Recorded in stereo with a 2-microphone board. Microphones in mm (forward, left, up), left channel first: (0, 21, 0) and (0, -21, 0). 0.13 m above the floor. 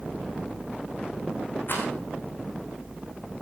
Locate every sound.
1.7 s a rattle: 55° left (ahead or behind), 5.5 m